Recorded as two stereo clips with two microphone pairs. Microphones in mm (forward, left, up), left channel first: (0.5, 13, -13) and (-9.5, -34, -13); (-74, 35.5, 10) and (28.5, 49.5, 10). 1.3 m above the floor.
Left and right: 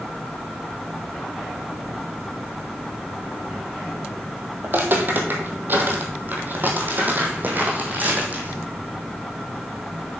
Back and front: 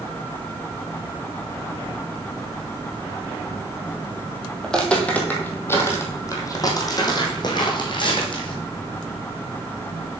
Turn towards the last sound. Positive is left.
turn(degrees=-150)